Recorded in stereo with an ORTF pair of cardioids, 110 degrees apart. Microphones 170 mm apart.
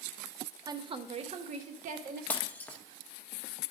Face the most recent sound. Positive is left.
turn(degrees=10)